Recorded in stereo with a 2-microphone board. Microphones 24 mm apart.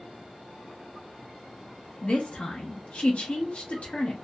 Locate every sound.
2.0 s a woman speaking: 55° left (ahead or behind), 0.6 m